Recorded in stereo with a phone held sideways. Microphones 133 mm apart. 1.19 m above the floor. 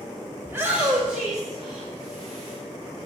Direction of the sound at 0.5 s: 20° right (ahead or behind).